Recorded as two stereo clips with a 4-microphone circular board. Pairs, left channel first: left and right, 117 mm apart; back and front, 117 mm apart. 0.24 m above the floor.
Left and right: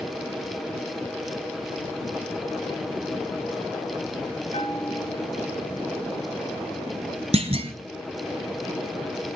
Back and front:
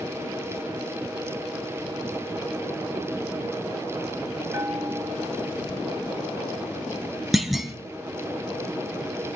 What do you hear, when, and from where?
4.5 s a bell: 65° left, 1.0 m
7.3 s a clunk: 90° right, 1.0 m